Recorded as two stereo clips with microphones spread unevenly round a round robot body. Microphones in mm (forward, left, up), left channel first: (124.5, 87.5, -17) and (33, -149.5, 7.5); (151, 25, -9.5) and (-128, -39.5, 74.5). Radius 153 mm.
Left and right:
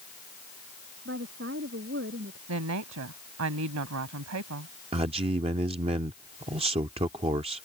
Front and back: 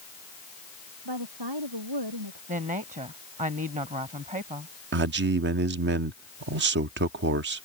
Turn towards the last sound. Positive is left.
turn(degrees=-150)